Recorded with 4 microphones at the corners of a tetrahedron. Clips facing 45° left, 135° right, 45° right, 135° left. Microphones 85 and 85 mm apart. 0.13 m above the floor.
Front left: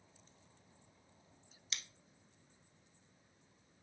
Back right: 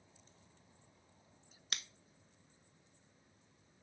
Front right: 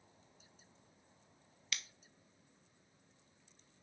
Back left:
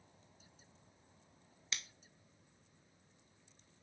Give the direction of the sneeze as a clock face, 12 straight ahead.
I don't hear a sneeze.